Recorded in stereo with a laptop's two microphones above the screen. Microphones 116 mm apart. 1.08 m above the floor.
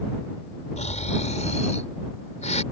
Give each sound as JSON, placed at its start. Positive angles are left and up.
{"t": 0.8, "sound": "snoring", "side_deg": 85}